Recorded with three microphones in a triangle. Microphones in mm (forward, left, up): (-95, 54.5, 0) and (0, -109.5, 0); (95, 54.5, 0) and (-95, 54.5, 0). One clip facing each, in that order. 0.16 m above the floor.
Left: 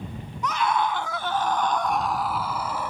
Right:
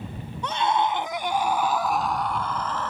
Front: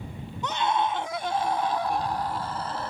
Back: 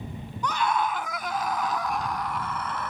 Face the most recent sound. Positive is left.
turn(degrees=45)